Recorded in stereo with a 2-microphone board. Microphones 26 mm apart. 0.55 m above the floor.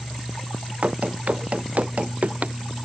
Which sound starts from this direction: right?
Running footsteps, at 0.8 s.